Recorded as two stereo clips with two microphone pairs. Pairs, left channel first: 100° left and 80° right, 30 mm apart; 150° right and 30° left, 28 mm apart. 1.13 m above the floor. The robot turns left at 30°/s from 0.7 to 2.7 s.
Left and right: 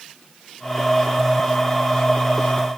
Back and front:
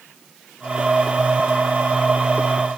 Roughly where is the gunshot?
No gunshot in this recording.